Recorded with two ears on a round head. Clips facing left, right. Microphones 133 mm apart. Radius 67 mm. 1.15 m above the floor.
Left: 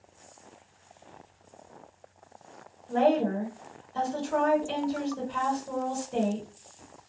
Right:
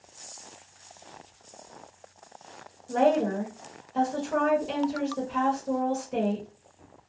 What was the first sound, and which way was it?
A woman speaking, 15° right (ahead or behind).